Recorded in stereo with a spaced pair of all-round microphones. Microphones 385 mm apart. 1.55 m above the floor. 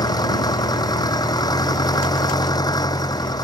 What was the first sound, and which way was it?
An engine running, 10° left (ahead or behind).